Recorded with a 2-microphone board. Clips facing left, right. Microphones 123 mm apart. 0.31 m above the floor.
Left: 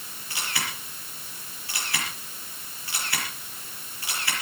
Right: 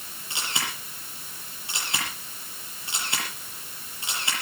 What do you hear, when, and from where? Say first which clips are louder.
0.3 s a camera shutter: even; 20° right (ahead or behind), 7 m